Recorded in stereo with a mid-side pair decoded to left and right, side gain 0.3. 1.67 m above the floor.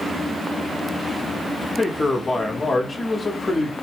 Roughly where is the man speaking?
Ahead left.